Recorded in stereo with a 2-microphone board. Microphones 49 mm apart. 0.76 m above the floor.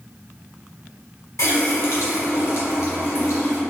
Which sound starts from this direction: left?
A running tap, at 1.4 s.